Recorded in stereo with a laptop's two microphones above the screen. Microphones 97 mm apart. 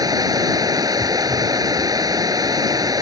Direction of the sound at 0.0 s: 40° right (ahead or behind).